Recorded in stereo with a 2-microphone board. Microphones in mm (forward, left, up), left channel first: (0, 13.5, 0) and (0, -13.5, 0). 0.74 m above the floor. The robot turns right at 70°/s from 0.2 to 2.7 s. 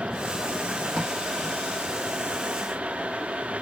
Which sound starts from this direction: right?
Tape being pulled, at 0.9 s.